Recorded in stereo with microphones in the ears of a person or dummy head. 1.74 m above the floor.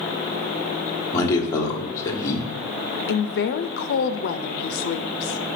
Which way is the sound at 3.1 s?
60° left (ahead or behind).